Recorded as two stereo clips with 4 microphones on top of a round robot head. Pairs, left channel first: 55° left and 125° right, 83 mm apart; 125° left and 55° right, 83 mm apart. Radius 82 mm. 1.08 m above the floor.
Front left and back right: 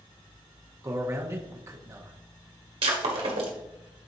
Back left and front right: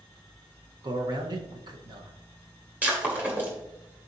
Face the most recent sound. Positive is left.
turn(degrees=-125)